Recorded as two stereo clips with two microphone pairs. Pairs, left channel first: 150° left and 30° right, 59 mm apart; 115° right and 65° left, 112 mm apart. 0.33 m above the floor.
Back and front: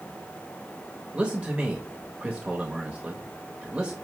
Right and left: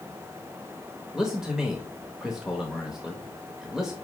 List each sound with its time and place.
1.1 s a man speaking: 10° right, 0.9 m